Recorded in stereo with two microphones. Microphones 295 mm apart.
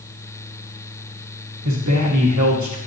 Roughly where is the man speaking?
Right.